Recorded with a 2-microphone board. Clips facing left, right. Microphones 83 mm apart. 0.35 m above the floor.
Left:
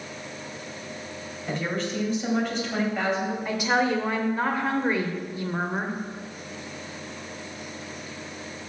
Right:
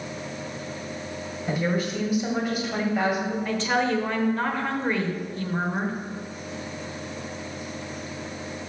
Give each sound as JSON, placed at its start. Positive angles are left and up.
{"t": 1.5, "sound": "a woman speaking", "side_deg": -10, "distance_m": 2.0}
{"t": 3.5, "sound": "a woman speaking", "side_deg": 10, "distance_m": 1.0}